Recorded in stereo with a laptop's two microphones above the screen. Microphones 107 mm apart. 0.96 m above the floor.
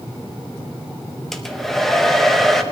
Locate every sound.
1.3 s a hair dryer: centre (ahead or behind), 0.8 m